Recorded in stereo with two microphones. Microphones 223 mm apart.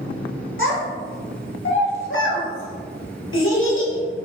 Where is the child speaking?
60° left (ahead or behind), 1.2 m.